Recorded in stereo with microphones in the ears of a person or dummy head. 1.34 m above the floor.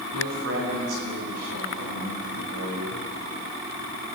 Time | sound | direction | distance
0.1 | a man speaking | 85° right | 9.5 m